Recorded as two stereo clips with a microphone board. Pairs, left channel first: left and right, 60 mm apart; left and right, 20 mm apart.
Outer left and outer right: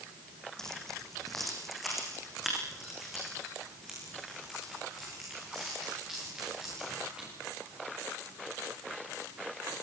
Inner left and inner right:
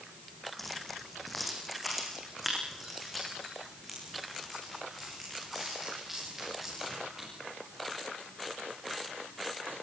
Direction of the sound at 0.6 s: 10° left (ahead or behind).